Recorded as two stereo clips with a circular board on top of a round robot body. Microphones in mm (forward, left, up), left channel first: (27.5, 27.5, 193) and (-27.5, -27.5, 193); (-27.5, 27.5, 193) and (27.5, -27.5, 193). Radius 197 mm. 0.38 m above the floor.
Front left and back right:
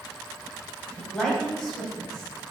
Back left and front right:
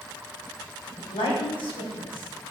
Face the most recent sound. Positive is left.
turn(degrees=135)